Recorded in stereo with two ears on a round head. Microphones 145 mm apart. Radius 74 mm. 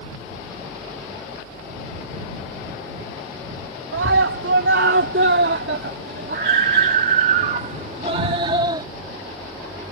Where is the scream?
80° right; by 8.9 s 25° right (ahead or behind).